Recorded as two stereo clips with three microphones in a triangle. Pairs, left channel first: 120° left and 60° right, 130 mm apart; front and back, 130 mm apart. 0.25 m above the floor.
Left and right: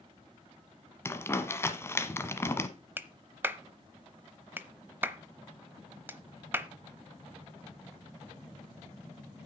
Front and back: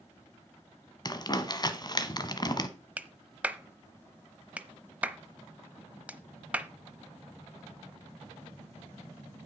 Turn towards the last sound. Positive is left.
turn(degrees=-115)